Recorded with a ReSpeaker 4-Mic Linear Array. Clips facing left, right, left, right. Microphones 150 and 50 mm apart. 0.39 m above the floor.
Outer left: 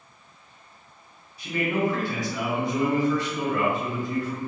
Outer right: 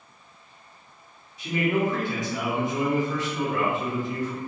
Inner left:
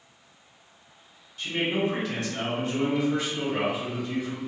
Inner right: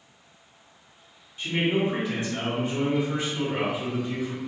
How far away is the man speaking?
About 0.9 m.